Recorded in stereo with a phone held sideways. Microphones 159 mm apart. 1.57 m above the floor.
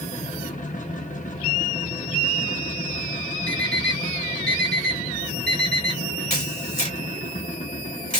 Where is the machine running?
55° left (ahead or behind), 0.9 m.